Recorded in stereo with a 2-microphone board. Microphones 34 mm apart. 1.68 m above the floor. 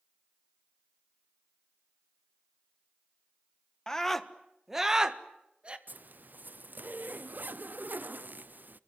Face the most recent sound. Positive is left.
turn(degrees=-60)  # may be behind; listen again after turning